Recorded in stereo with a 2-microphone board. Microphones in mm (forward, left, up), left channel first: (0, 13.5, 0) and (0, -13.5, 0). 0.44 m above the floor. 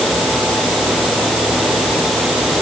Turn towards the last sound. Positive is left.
No sound to turn to.